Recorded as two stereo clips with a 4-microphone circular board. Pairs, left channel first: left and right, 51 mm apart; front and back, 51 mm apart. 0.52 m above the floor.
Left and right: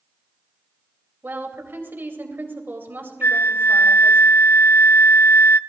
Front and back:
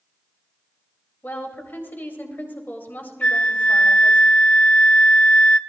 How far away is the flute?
About 0.6 m.